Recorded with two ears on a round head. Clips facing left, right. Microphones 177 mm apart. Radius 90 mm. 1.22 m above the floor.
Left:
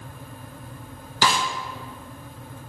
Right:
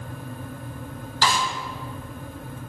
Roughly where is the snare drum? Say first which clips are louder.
Left 1 dB; left.